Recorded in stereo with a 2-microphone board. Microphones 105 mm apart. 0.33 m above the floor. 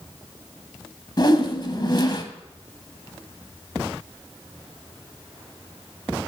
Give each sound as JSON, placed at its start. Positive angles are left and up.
{"t": 1.2, "sound": "a whoosh", "side_deg": 45, "distance_m": 1.1}